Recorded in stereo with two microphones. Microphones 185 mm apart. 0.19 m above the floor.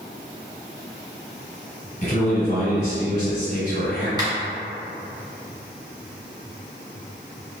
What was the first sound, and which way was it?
A man speaking, 45° left (ahead or behind).